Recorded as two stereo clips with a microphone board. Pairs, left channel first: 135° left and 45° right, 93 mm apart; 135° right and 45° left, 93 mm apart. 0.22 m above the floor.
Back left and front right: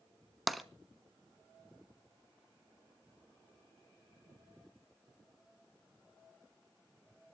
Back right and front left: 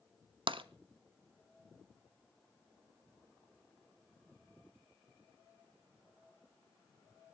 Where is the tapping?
45° left, 0.8 m.